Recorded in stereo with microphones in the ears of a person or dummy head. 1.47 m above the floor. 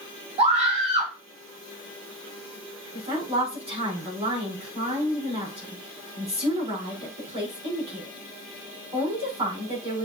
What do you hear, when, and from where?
0.4 s a scream: 25° right (ahead or behind), 2.5 m
2.9 s a woman speaking: 20° right (ahead or behind), 5 m